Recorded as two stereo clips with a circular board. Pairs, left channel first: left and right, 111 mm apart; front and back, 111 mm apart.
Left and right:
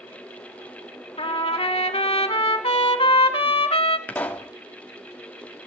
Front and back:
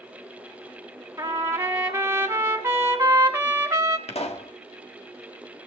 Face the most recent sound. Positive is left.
turn(degrees=15)